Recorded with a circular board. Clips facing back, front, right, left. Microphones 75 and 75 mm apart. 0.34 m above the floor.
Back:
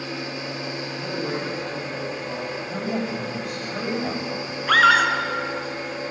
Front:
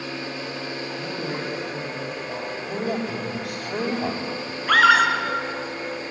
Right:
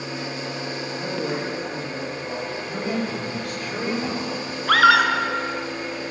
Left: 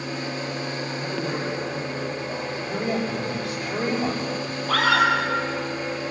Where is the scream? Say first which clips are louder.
Even, right 4 dB; 90° right, 4.5 m.